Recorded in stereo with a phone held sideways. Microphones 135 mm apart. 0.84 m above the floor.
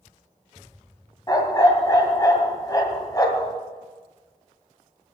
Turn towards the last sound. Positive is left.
turn(degrees=25)  # may be behind; listen again after turning